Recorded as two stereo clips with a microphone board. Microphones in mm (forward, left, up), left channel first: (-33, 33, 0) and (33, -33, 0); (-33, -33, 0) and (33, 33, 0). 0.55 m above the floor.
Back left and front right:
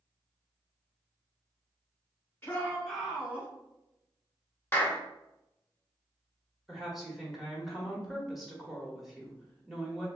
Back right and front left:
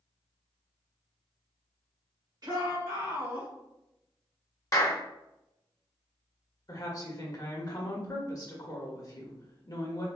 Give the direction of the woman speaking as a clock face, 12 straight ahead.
4 o'clock.